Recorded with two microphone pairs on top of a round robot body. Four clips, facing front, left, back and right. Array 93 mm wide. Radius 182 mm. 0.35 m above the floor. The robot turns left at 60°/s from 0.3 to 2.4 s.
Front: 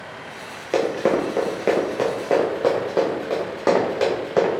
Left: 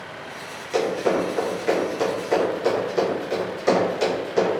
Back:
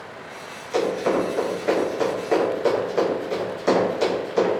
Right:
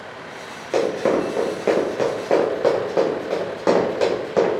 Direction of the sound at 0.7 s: 15° right.